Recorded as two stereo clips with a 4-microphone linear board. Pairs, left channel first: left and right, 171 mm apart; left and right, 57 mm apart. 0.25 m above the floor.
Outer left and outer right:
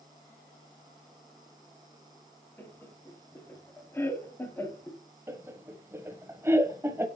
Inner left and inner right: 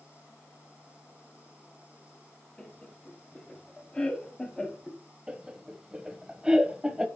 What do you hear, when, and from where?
2.6 s laughter: 15° left (ahead or behind), 1.3 m
5.3 s laughter: 15° right (ahead or behind), 1.0 m